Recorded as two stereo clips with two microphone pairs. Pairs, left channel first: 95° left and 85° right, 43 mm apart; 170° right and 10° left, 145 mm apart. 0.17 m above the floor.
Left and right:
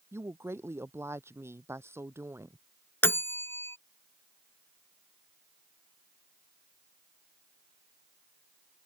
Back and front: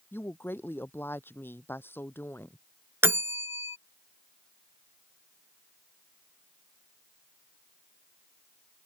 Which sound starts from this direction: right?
A woman speaking, at 0.1 s.